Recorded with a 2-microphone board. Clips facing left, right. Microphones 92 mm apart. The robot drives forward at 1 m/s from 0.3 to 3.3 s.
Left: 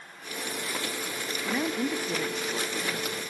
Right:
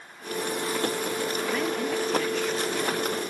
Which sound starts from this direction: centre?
A woman speaking, at 1.4 s.